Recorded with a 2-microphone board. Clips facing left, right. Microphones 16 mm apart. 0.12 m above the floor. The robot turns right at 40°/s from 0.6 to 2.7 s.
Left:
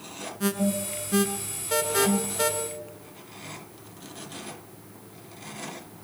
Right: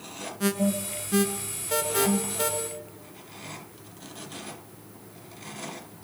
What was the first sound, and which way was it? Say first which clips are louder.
An alarm: even; centre (ahead or behind).